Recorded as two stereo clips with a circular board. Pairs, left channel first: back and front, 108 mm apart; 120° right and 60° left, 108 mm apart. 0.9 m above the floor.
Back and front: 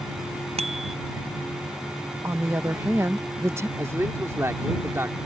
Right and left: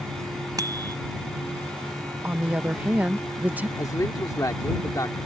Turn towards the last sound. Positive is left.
turn(degrees=-65)